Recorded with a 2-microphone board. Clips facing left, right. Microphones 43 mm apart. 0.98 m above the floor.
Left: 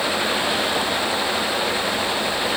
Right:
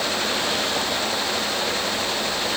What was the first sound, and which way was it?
Only background noise.